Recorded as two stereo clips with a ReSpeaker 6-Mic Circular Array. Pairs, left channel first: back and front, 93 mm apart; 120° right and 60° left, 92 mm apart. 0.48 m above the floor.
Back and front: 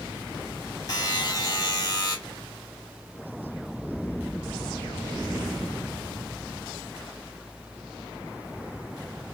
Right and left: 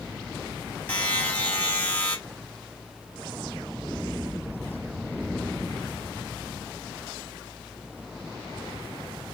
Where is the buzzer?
175° left, 1.7 m.